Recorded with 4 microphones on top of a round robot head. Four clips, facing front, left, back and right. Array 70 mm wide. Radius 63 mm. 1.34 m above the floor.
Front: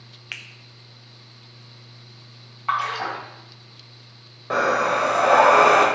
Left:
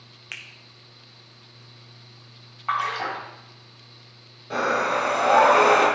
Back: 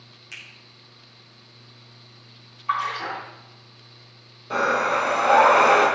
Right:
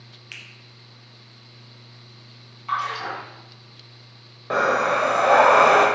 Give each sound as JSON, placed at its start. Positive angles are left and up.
{"t": 0.3, "sound": "a finger snap", "azimuth_deg": 35, "distance_m": 0.6}
{"t": 2.7, "sound": "a splash", "azimuth_deg": 40, "distance_m": 2.0}
{"t": 4.5, "sound": "breathing", "azimuth_deg": -50, "distance_m": 1.6}